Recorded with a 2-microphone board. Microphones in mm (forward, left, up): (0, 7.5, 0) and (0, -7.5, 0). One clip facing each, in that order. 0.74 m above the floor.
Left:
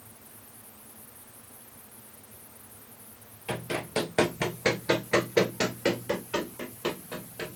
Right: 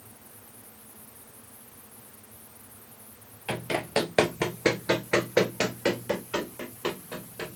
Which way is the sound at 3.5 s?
20° right (ahead or behind).